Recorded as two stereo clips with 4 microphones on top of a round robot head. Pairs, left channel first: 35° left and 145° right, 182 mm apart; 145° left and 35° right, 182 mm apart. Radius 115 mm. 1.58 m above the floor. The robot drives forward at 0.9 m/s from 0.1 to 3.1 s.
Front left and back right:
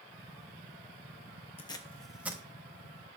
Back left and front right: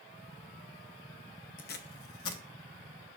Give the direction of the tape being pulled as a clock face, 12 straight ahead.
9 o'clock.